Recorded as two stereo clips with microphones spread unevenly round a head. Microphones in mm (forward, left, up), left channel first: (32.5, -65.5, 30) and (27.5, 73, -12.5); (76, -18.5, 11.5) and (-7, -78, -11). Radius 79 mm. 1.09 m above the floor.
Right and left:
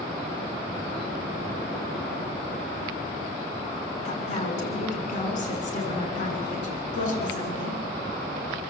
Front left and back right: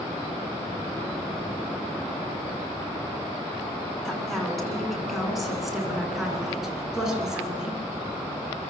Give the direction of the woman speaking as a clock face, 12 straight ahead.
2 o'clock.